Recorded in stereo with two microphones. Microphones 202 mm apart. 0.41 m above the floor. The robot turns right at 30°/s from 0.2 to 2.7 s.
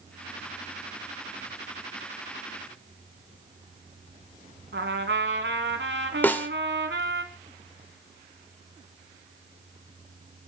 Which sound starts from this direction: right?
A trumpet, at 4.7 s.